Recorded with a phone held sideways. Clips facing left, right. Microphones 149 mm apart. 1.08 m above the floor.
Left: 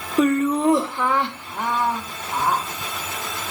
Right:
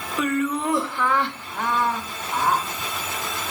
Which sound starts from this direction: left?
Laughter, at 0.2 s.